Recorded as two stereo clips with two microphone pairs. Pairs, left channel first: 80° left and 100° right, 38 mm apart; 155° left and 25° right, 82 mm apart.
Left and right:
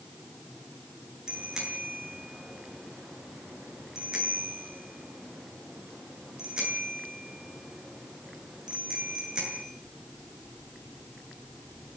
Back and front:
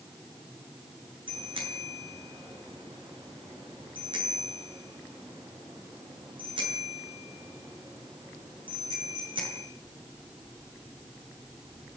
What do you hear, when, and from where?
1.3 s a bicycle bell: 30° right, 7.5 m